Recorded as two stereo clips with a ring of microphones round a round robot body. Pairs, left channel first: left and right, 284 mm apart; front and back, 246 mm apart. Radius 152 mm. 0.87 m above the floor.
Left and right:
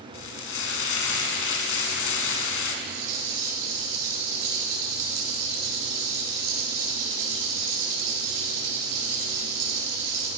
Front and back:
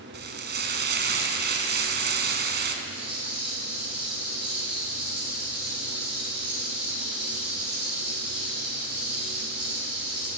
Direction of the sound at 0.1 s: 135° left.